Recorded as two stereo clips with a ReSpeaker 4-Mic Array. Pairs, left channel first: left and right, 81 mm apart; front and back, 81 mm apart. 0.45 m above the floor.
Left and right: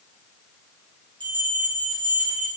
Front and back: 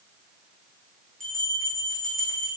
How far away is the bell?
About 6.5 m.